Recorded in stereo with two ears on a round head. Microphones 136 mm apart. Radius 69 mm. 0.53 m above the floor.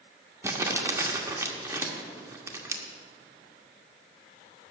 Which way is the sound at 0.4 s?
20° right (ahead or behind).